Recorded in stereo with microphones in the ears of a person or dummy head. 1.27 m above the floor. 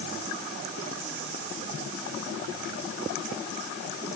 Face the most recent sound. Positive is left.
No sound to turn to.